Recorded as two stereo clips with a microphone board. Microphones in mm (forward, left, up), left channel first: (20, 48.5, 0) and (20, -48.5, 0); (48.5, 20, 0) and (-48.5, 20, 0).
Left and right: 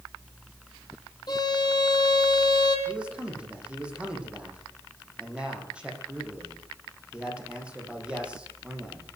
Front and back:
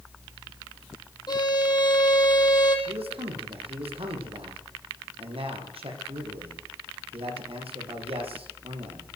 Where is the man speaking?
170° right, 7.5 m.